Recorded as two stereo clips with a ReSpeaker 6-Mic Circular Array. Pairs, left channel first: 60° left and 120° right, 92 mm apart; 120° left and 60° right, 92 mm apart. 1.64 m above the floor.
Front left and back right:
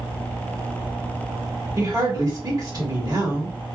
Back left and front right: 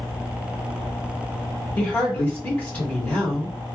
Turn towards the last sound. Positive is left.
turn(degrees=-170)